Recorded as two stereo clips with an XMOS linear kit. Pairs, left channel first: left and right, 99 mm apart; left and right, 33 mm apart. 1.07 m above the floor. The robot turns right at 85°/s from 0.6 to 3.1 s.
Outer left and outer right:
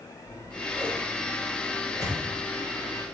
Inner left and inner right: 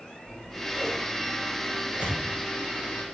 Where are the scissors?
20° right (ahead or behind), 3 m; by 3.0 s 50° left (ahead or behind), 3 m.